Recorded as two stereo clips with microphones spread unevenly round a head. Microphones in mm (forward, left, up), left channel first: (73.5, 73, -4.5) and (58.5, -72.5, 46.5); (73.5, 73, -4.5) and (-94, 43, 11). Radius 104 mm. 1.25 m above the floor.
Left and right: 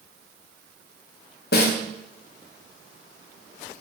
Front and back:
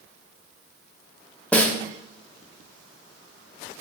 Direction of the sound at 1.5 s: 95° left.